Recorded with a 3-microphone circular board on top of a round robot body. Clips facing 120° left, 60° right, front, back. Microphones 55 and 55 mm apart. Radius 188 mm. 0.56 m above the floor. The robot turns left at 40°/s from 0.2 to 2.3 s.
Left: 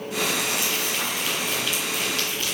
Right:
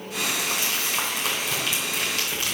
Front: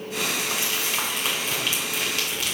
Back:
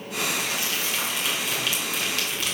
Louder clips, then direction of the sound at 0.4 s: Left 1 dB, front 1 dB; 10° right.